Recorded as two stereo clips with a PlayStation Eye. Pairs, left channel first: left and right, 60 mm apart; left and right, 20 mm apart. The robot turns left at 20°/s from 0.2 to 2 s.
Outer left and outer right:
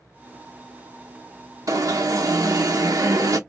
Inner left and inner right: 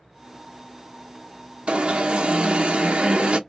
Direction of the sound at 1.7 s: 70° right (ahead or behind).